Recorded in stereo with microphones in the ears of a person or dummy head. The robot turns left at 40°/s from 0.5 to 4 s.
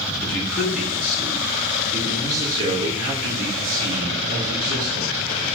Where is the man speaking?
5° left, 2.5 m; by 5.2 s 135° right, 2.5 m.